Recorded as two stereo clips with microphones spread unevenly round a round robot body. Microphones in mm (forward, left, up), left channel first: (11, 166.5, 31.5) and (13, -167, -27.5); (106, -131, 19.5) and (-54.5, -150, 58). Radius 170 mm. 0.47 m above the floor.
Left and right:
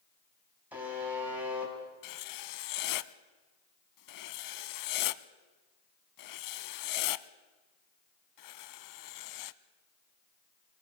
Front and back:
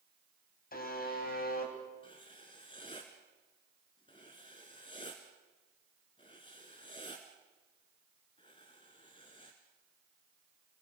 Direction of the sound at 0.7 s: 5° right.